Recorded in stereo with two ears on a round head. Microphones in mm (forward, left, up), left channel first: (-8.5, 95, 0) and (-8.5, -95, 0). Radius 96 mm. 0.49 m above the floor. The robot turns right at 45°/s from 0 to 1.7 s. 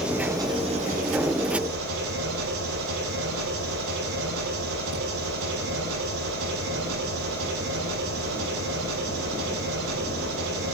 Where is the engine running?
175° right, 7 m; by 10.8 s 100° right, 7 m.